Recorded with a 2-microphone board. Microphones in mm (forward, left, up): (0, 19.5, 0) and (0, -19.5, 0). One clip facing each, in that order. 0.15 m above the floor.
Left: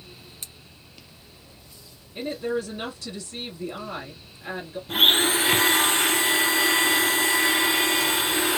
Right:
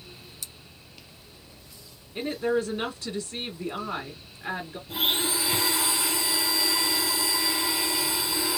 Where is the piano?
No piano in this recording.